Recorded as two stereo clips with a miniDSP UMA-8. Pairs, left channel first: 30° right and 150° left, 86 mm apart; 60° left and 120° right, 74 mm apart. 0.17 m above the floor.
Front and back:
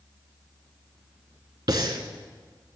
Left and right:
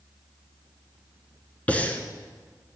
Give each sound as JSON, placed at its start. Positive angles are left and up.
{"t": 1.7, "sound": "breathing", "azimuth_deg": 130, "distance_m": 0.7}